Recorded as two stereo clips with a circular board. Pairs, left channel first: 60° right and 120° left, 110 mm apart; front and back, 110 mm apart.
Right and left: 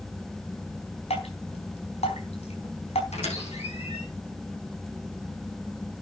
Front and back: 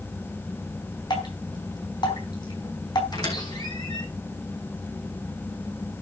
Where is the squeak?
50° right, 7.5 m.